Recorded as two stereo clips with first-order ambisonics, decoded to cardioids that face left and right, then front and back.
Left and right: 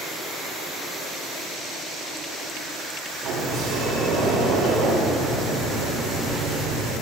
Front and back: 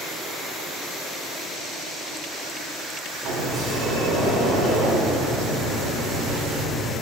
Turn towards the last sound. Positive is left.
turn(degrees=-140)